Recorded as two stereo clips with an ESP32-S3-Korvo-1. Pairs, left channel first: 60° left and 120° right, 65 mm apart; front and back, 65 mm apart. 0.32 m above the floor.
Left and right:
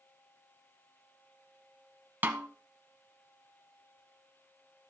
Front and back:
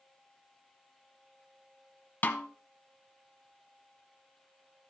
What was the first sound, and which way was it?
A snare drum, 65° right.